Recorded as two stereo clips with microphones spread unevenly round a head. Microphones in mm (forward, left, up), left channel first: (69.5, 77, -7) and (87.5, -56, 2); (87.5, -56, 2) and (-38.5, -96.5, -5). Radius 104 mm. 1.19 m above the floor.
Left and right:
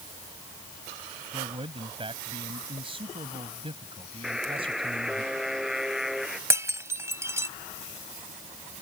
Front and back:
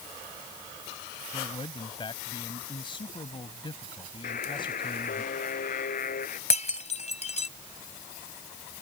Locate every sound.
1.3 s a man speaking: 35° right
4.2 s a buzzer: 5° left
6.5 s breaking glass: 15° right